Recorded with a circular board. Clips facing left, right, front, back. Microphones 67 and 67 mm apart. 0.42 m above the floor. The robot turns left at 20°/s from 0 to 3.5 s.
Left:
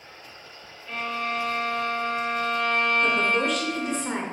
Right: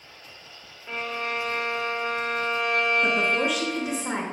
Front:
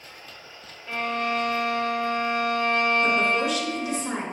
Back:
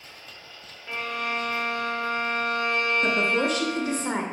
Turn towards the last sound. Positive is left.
turn(degrees=-170)